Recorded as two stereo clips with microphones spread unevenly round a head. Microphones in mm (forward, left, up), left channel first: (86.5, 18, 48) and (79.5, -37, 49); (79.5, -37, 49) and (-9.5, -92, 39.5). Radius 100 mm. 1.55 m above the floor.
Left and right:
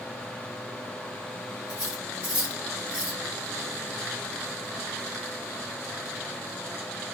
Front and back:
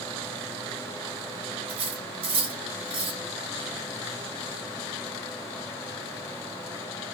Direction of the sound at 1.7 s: 170° right.